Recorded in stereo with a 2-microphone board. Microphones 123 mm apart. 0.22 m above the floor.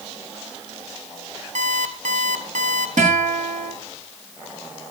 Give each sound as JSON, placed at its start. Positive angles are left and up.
{"t": 1.6, "sound": "an alarm clock", "side_deg": -75, "distance_m": 2.5}
{"t": 3.0, "sound": "a guitar", "side_deg": -90, "distance_m": 8.5}